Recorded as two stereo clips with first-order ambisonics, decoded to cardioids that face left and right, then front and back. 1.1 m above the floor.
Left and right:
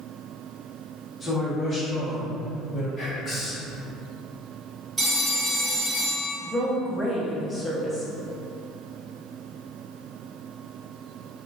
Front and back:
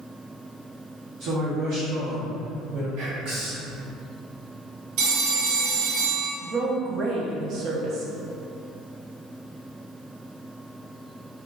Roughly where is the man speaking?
Behind.